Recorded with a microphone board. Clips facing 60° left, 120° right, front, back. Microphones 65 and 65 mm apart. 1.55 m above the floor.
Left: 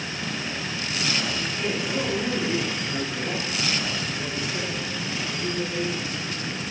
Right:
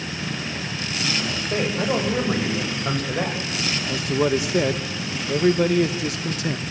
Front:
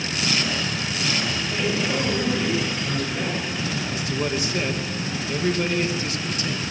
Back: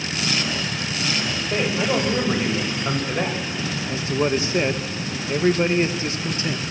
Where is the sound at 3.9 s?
115° right, 1.6 m.